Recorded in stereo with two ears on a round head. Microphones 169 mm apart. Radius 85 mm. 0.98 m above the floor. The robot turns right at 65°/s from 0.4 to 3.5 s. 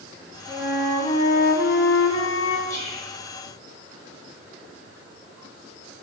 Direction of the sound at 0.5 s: 20° right.